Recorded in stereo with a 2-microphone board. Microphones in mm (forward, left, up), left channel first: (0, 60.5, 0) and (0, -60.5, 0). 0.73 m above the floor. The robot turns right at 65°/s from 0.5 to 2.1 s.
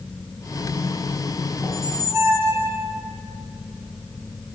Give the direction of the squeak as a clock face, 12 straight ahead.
6 o'clock.